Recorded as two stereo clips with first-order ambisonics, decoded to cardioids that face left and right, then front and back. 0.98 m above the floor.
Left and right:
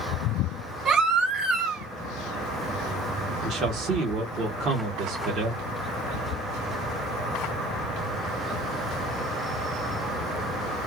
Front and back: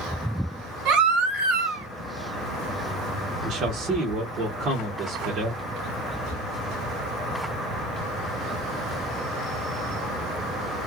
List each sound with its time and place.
0.8 s a baby crying: 150° right, 1.4 m
3.4 s a man speaking: 130° right, 1.2 m